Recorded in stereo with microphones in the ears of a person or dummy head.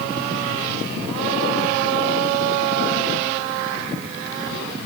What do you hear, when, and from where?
Only background noise.